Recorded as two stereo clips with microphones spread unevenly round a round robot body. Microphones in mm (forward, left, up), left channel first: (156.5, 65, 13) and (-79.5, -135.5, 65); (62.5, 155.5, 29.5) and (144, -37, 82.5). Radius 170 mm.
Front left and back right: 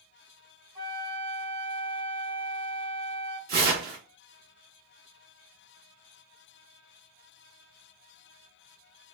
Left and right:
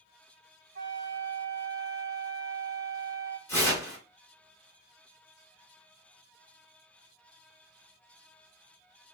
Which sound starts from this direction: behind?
Tearing paper, at 3.5 s.